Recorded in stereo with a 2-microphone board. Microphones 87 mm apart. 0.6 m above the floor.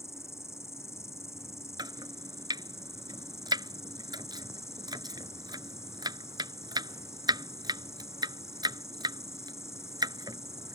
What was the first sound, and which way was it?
An insect, 35° left (ahead or behind).